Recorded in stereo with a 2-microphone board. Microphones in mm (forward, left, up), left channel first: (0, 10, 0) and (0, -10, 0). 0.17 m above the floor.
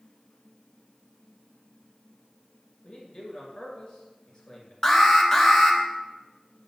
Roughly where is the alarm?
Left.